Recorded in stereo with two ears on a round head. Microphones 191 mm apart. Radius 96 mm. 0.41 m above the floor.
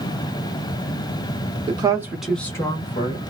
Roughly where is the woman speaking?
Right.